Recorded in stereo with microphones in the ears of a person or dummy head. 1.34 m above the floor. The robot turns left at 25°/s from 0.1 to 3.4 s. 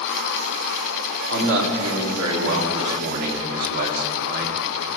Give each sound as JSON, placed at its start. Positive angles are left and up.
{"t": 1.3, "sound": "a man speaking", "azimuth_deg": -75, "distance_m": 2.5}